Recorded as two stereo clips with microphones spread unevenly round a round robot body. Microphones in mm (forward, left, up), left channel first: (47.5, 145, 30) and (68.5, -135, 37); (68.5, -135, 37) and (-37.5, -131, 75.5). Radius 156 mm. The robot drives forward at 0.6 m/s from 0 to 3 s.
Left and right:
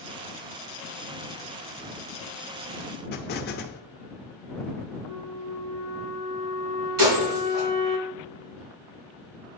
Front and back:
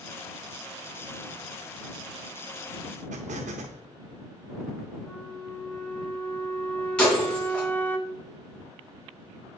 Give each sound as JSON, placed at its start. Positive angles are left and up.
{"t": 3.1, "sound": "an explosion", "azimuth_deg": 150, "distance_m": 0.5}
{"t": 5.0, "sound": "a flute", "azimuth_deg": -75, "distance_m": 1.1}
{"t": 7.0, "sound": "breaking glass", "azimuth_deg": -80, "distance_m": 4.0}